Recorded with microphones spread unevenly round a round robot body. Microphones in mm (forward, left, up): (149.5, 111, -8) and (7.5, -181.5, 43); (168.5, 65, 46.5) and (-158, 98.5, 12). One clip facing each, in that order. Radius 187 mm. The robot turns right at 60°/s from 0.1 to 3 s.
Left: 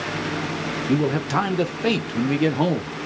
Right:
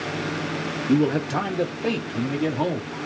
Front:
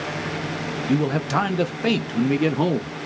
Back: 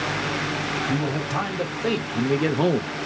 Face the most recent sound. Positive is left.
turn(degrees=105)